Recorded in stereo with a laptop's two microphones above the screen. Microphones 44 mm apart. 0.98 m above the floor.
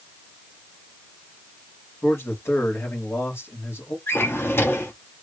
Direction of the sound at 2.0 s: 65° left (ahead or behind).